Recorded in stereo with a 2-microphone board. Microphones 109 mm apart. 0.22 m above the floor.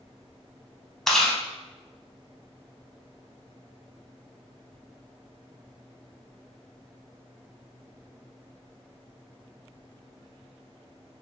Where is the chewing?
5° left (ahead or behind), 0.6 m.